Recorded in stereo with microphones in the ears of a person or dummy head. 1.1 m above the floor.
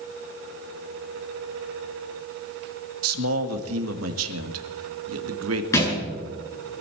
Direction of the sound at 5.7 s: 15° left (ahead or behind).